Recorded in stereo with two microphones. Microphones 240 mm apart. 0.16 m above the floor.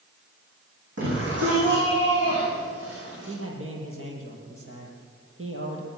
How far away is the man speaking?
About 5.5 m.